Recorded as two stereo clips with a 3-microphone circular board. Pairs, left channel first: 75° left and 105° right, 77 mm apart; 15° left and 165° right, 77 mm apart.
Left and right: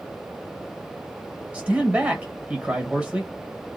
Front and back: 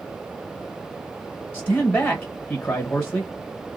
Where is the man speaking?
50° right, 1.3 m.